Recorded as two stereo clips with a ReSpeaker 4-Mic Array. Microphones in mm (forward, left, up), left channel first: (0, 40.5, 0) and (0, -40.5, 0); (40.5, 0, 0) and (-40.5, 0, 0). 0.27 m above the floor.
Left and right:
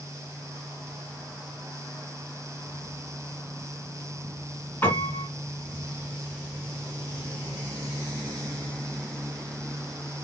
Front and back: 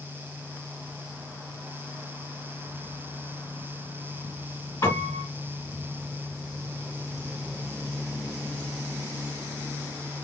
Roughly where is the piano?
Ahead left.